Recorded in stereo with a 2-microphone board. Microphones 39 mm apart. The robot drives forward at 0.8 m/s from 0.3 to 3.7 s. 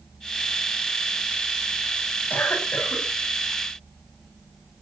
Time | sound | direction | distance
2.3 | a cough | 50° left (ahead or behind) | 7.5 m